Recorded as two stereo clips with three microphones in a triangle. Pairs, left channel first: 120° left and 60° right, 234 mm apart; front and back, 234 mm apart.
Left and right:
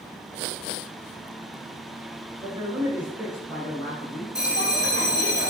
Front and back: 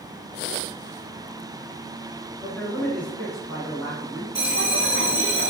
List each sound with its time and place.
2.4 s a man speaking: 70° right, 1.2 m; by 4.2 s 90° left, 1.4 m
4.3 s a bell: 160° left, 0.7 m